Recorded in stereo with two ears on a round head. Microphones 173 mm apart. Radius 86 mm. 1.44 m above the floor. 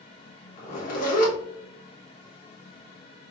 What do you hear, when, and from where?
0.6 s a zipper: 45° left (ahead or behind), 1.0 m